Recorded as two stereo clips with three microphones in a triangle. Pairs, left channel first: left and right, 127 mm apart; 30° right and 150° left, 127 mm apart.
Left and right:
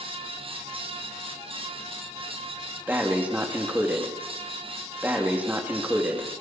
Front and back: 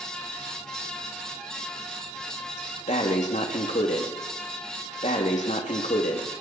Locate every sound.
2.9 s breathing: 15° right, 3 m